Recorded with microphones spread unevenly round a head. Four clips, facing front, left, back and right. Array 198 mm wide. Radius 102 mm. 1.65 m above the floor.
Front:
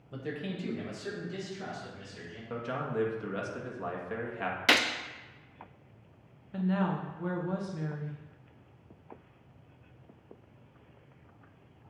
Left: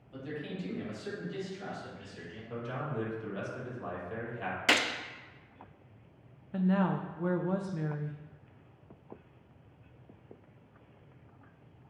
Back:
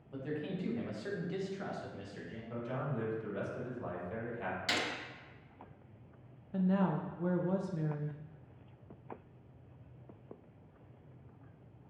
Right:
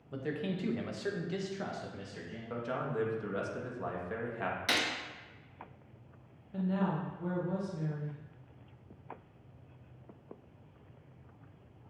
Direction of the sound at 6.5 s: 105° left.